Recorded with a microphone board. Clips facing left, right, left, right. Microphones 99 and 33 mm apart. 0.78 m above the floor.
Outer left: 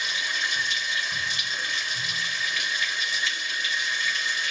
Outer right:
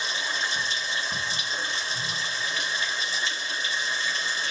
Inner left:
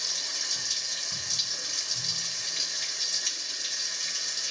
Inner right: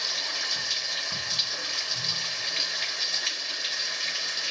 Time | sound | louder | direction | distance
0.0 | running water | even, inner right 4 dB | 30° right (ahead or behind) | 0.8 m